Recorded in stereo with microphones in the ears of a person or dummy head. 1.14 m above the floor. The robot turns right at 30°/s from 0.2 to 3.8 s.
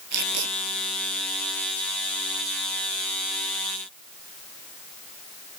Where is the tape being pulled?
55° right (ahead or behind); by 0.5 s 65° right (ahead or behind).